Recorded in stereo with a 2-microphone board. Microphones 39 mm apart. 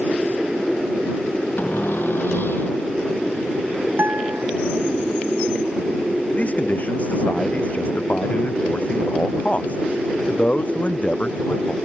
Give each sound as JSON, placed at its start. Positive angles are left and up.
{"t": 1.6, "sound": "a cupboard door", "side_deg": 60}
{"t": 4.0, "sound": "a guitar", "side_deg": -70}
{"t": 6.3, "sound": "a man speaking", "side_deg": 40}